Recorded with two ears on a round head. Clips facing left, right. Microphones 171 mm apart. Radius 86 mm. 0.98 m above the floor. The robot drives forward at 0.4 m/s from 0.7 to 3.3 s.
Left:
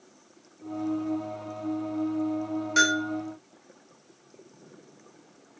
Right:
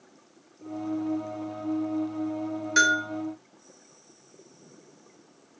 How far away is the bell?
About 0.7 m.